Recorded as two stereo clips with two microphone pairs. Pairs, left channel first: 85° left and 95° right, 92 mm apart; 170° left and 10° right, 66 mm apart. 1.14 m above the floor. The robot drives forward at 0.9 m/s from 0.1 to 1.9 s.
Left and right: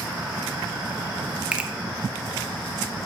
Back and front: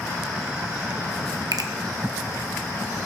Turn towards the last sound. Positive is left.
turn(degrees=-30)